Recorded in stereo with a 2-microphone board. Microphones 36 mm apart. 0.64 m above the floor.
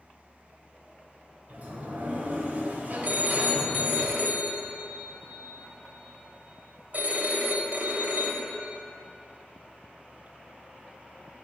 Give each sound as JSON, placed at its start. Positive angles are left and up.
{"t": 1.5, "sound": "a sliding door", "side_deg": -45, "distance_m": 1.2}
{"t": 3.0, "sound": "a phone ringing", "side_deg": -50, "distance_m": 0.9}